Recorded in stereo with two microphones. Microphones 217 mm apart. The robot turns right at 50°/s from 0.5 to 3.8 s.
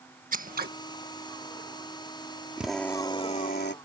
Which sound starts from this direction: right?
Scissors, at 0.3 s.